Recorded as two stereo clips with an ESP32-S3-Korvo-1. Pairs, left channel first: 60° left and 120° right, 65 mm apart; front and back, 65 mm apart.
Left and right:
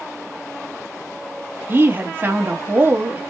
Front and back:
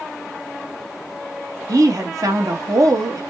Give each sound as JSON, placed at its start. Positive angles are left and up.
{"t": 1.7, "sound": "a woman speaking", "azimuth_deg": -175, "distance_m": 1.0}